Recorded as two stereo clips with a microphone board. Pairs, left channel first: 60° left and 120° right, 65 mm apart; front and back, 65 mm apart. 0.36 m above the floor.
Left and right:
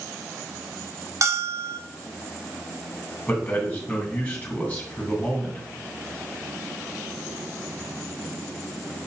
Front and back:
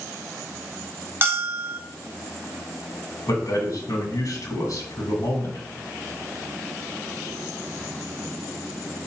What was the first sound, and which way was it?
A bell, 135° right.